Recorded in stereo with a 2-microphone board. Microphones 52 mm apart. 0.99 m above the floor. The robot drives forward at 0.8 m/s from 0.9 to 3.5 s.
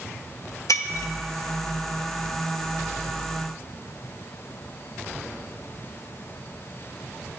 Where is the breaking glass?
75° left (ahead or behind), 0.7 m; by 1.1 s 70° left (ahead or behind), 0.7 m.